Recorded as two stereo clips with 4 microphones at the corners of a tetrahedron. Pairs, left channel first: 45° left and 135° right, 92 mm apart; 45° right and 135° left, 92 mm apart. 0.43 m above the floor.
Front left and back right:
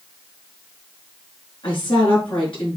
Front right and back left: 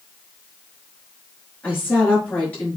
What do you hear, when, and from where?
1.6 s a woman speaking: 25° left, 5.5 m